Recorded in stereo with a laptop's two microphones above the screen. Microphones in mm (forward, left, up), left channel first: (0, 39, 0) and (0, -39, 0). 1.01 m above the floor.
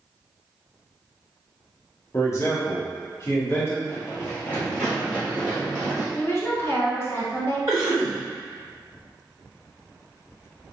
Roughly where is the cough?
Right.